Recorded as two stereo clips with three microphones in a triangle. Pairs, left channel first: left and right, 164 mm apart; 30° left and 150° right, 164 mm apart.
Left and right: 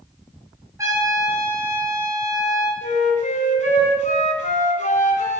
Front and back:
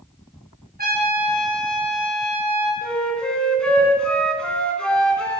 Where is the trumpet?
160° right, 4 m.